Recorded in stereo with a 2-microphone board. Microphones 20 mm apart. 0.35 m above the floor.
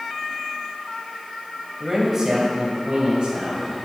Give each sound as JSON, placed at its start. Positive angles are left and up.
{"t": 1.8, "sound": "a man speaking", "side_deg": -20, "distance_m": 1.9}